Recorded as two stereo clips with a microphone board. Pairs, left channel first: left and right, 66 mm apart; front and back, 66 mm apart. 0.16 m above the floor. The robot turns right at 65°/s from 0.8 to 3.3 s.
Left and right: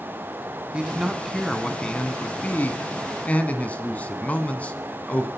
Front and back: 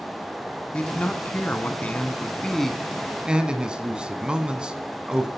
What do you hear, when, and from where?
0.7 s a man speaking: 40° right, 1.3 m; by 5.3 s 125° left, 1.3 m